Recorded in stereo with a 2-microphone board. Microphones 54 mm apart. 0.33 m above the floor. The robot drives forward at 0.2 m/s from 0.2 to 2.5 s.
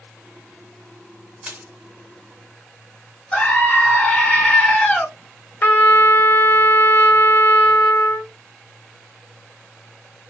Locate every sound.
1.4 s crushing: 20° right (ahead or behind), 1.2 m
3.3 s a scream: 20° left (ahead or behind), 1.6 m
5.6 s a trumpet: 40° left (ahead or behind), 0.7 m